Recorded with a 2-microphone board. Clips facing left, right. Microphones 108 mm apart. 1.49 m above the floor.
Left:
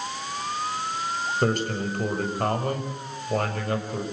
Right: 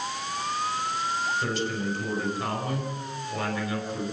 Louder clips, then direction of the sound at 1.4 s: Left 4 dB; 60° left (ahead or behind).